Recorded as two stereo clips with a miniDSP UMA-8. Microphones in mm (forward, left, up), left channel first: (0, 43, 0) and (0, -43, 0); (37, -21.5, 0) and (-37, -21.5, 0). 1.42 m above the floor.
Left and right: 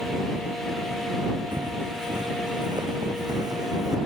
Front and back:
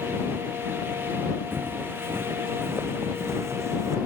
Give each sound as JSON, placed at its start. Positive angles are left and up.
{"t": 1.5, "sound": "footsteps", "azimuth_deg": -120}